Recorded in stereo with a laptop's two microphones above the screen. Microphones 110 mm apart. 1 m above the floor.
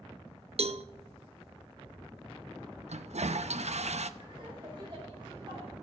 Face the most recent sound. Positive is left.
turn(degrees=-45)  # may be behind; listen again after turning